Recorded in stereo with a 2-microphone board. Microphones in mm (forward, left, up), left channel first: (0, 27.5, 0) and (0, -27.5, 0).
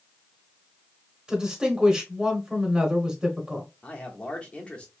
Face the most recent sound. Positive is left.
turn(degrees=20)  # may be behind; listen again after turning